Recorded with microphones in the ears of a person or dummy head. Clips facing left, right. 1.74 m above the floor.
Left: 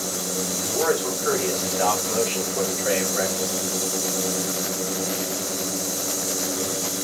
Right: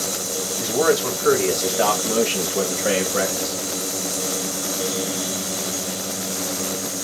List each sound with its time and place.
0.6 s a man speaking: 65° right (ahead or behind), 5.5 m; by 3.6 s 70° right (ahead or behind), 4 m